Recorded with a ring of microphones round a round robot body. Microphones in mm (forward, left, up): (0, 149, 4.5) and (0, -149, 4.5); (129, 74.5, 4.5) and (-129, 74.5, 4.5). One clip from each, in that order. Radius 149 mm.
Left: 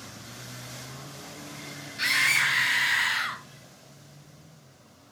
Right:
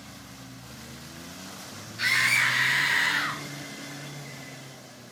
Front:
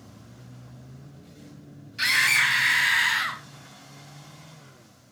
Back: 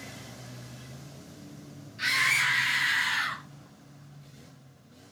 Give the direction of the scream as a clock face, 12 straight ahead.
12 o'clock.